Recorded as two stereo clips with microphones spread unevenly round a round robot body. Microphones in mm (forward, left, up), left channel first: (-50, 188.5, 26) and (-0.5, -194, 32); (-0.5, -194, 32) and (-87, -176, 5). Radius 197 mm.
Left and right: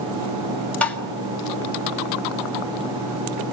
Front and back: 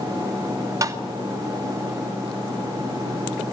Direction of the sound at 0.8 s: Straight behind.